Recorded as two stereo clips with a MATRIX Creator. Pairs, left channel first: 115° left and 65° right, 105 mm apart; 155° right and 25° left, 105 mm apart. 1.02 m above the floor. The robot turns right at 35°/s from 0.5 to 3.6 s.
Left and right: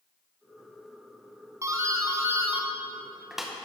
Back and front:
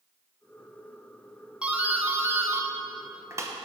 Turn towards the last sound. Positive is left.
turn(degrees=20)